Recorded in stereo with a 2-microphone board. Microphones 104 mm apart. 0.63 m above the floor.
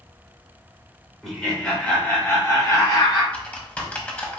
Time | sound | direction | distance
1.2 | laughter | 5° left (ahead or behind) | 2 m
3.3 | typing on a keyboard | 15° left (ahead or behind) | 1.3 m